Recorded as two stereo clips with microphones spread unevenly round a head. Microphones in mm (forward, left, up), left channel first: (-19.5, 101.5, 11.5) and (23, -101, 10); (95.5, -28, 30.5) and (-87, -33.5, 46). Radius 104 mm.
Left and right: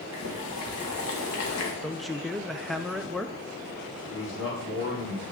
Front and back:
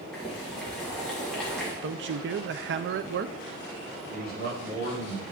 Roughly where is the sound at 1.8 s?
Behind.